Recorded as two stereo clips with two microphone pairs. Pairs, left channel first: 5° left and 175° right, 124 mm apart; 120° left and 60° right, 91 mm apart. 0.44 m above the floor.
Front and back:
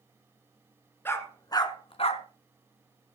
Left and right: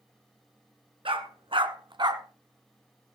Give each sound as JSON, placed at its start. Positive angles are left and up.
{"t": 1.1, "sound": "a dog barking", "azimuth_deg": -65, "distance_m": 1.7}